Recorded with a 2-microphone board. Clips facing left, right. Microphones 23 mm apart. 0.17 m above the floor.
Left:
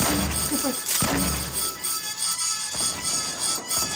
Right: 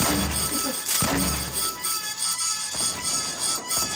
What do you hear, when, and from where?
0.5 s a giggle: 85° left, 1.6 m